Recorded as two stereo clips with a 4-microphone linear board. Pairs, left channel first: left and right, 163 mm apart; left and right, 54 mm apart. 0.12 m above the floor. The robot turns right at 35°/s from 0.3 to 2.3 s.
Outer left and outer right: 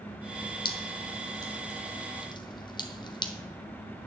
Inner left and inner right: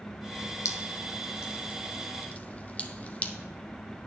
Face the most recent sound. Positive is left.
turn(degrees=30)  # may be behind; listen again after turning